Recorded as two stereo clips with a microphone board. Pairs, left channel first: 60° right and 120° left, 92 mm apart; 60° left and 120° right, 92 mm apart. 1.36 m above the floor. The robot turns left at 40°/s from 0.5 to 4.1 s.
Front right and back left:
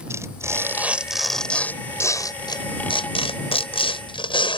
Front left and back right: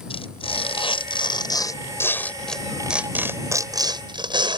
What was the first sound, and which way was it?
Tearing paper, 60° left.